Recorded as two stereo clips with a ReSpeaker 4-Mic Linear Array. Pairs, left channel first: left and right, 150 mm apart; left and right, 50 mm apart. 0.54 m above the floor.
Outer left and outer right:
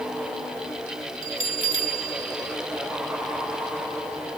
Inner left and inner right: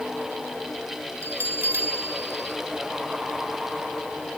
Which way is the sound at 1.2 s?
65° right (ahead or behind).